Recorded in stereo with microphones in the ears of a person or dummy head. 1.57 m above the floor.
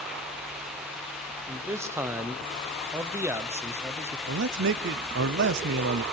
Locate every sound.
1.5 s a man speaking: 10° right (ahead or behind), 0.9 m
4.3 s a man speaking: 55° right (ahead or behind), 0.6 m